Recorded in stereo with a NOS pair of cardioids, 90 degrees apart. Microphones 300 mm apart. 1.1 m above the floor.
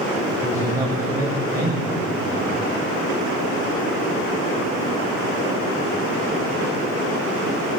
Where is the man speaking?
10° right, 5.5 m.